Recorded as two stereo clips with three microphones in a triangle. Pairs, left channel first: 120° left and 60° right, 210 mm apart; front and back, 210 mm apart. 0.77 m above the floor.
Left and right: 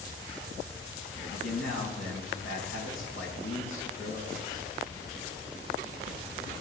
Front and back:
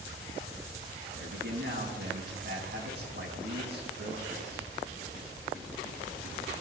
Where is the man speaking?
140° left, 5 m.